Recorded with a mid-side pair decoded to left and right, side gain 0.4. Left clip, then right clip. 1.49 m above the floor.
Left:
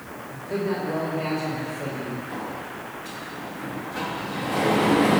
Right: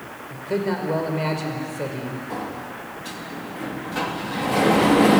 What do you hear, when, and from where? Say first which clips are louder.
0.3 s a man speaking: right 3 dB; 50° right, 5.5 m
2.3 s a sliding door: right 2 dB; 50° right, 3 m